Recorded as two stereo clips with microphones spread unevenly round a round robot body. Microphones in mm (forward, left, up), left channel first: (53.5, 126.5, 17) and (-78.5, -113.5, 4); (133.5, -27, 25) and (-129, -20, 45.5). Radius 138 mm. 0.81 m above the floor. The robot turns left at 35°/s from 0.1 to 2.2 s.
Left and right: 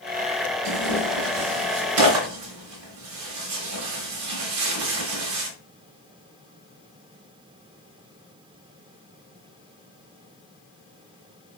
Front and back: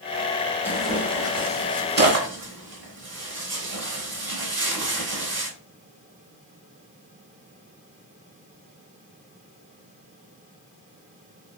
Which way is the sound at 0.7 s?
85° right.